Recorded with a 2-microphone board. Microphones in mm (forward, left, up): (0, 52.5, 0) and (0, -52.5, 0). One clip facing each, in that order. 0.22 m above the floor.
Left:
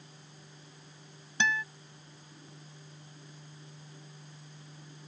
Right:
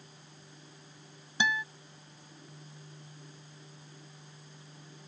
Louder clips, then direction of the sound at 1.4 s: Even; 10° right (ahead or behind).